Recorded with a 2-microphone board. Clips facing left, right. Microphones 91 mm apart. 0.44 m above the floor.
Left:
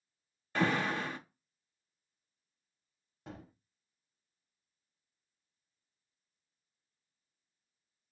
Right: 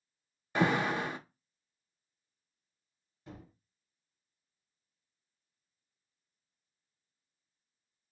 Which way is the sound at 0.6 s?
15° right (ahead or behind).